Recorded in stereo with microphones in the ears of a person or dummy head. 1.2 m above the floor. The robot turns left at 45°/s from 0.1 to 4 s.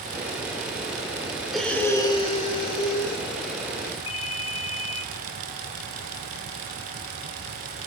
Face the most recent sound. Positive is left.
turn(degrees=30)  # may be behind; listen again after turning